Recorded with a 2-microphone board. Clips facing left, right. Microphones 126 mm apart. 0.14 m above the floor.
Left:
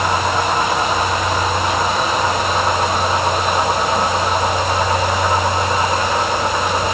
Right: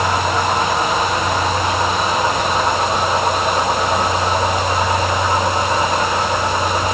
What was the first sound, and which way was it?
Only background noise.